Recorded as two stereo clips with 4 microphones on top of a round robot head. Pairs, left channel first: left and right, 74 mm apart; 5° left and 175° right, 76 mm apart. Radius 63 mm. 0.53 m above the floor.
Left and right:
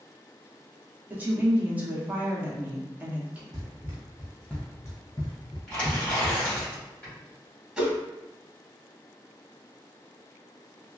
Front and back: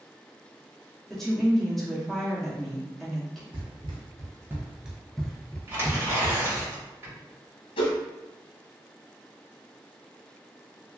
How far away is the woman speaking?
About 1.0 m.